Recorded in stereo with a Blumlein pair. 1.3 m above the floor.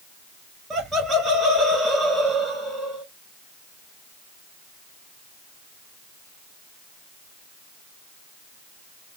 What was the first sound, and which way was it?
Laughter, 20° right.